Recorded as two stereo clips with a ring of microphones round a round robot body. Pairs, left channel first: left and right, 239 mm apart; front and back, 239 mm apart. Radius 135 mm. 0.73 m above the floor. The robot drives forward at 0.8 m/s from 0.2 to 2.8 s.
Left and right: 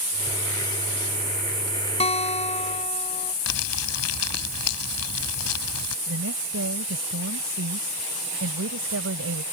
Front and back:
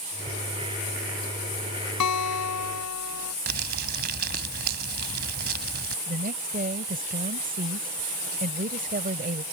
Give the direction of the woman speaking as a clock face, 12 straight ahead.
4 o'clock.